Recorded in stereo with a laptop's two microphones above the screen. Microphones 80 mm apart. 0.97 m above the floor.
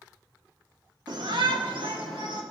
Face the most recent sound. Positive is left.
turn(degrees=-75)  # may be behind; listen again after turning